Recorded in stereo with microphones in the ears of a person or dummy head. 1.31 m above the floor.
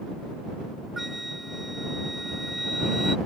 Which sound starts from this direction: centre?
A flute, at 1.0 s.